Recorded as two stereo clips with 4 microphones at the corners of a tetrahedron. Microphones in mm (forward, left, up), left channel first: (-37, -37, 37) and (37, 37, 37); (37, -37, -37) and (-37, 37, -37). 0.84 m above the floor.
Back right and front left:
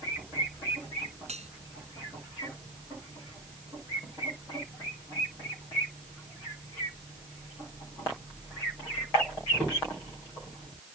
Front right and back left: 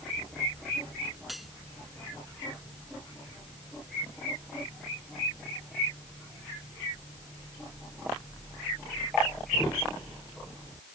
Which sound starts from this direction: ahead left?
Cutlery clinking, at 1.3 s.